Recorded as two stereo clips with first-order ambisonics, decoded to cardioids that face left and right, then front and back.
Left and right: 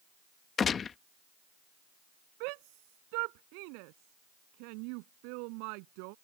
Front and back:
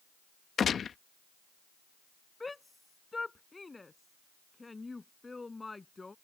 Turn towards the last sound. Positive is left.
turn(degrees=-80)